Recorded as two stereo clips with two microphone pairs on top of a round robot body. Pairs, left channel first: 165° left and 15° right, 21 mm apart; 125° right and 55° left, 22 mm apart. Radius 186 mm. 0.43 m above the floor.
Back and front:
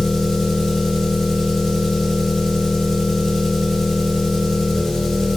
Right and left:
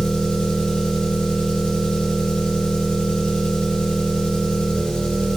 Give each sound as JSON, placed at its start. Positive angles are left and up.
{"t": 0.0, "sound": "an engine running", "azimuth_deg": -120, "distance_m": 2.5}